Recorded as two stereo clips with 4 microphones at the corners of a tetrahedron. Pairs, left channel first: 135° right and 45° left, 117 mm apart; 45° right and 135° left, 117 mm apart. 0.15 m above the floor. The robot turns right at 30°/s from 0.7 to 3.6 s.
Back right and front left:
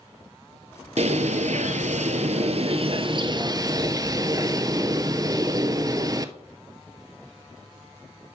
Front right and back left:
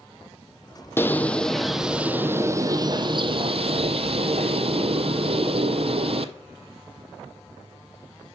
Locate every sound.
1.0 s a bird: 25° left, 0.5 m; by 6.3 s 105° left, 0.5 m